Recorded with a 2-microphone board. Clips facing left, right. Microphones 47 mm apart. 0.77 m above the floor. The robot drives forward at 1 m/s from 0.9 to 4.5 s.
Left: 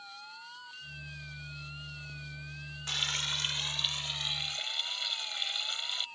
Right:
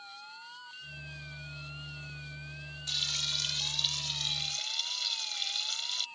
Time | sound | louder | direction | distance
2.9 | frying | left 3 dB | 45° left (ahead or behind) | ?